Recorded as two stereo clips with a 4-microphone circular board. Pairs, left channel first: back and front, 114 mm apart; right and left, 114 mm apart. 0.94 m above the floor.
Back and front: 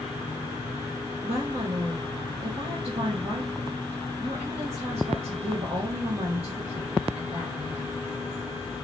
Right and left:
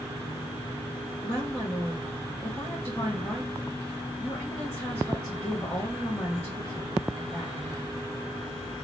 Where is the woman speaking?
5° left, 1.6 m.